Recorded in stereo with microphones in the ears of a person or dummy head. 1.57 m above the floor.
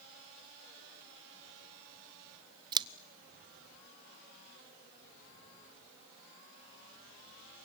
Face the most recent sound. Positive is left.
turn(degrees=-25)  # may be behind; listen again after turning